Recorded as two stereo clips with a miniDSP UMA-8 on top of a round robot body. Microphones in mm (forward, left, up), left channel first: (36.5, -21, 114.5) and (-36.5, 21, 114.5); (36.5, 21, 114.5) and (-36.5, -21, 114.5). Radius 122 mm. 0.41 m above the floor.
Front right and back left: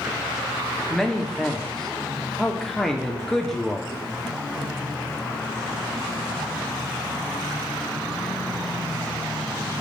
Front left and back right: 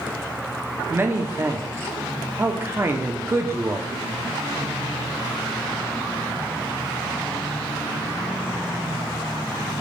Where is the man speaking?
110° right, 0.9 m.